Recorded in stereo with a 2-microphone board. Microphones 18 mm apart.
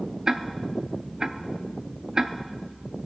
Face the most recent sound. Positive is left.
turn(degrees=-40)  # may be behind; listen again after turning